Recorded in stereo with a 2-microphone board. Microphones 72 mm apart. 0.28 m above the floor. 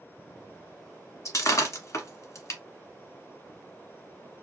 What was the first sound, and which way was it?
Breaking glass, 45° left (ahead or behind).